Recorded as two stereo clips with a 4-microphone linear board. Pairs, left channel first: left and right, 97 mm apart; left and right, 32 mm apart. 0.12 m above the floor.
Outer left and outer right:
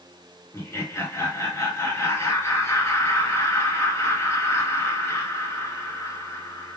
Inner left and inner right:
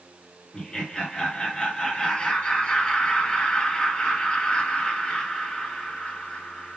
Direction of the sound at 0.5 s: 30° left (ahead or behind).